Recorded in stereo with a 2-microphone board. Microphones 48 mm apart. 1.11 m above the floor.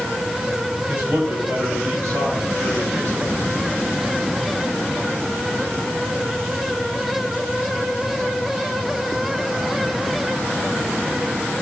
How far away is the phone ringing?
No phone ringing in this recording.